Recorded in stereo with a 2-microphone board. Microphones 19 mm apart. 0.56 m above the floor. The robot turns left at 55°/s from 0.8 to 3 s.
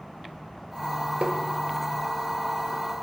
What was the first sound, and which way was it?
Tapping, 85° right.